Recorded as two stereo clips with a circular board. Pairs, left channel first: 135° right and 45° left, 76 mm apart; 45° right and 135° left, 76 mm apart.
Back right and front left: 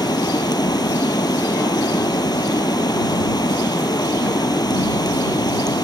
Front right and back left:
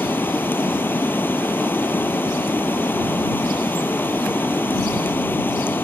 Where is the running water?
110° right.